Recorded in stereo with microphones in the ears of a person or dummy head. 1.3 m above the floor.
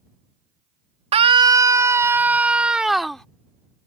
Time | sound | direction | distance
1.1 | a scream | 30° right (ahead or behind) | ?